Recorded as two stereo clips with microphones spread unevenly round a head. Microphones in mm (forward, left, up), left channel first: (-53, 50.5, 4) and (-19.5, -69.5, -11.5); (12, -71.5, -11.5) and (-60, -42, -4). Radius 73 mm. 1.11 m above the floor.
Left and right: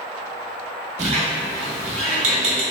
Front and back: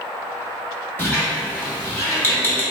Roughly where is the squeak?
Right.